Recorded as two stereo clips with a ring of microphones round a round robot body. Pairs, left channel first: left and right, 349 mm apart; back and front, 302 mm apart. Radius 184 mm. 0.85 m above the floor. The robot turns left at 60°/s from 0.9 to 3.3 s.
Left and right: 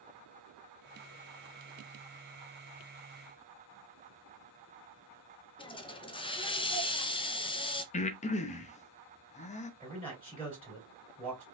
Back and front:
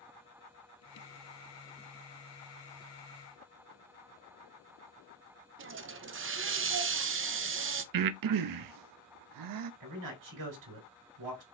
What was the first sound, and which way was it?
A hiss, 20° left.